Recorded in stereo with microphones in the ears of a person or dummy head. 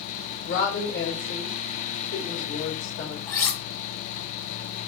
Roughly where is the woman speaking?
Left.